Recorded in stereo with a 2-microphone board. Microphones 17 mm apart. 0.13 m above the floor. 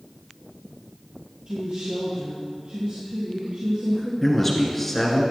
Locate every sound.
1.5 s a woman speaking: 55° right (ahead or behind), 3.5 m
4.2 s a man speaking: 10° left (ahead or behind), 2.0 m